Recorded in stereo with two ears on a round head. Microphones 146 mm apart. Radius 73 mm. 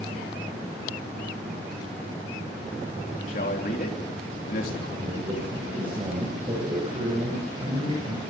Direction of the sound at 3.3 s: 55° left (ahead or behind).